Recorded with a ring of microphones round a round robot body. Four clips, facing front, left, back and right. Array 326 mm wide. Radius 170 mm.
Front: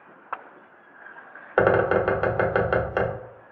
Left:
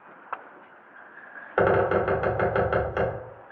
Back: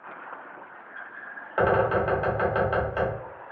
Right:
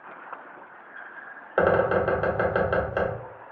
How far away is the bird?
About 0.8 m.